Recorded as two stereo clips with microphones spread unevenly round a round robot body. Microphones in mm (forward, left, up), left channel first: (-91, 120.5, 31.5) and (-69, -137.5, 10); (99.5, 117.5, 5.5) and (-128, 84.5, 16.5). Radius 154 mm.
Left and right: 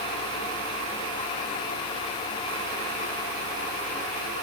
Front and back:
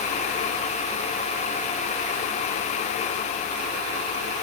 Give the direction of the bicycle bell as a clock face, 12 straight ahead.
I don't hear a bicycle bell.